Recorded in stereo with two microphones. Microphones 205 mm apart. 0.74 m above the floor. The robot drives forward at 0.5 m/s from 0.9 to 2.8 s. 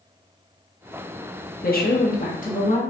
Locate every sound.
1.6 s a woman speaking: 45° left (ahead or behind), 0.9 m; by 2.8 s 35° left (ahead or behind), 1.0 m